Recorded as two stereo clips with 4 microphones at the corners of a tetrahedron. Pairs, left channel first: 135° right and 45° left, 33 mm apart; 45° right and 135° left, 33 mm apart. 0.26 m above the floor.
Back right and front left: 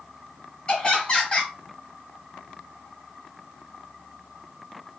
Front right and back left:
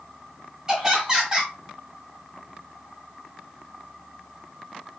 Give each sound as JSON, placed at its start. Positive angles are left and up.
{"t": 0.7, "sound": "laughter", "azimuth_deg": -155, "distance_m": 1.5}